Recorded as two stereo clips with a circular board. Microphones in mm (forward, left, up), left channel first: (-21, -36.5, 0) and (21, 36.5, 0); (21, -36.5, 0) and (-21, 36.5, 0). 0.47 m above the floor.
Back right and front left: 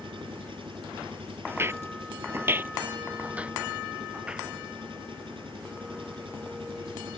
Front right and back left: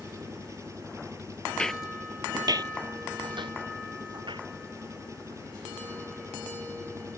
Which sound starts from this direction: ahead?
Footsteps, at 1.5 s.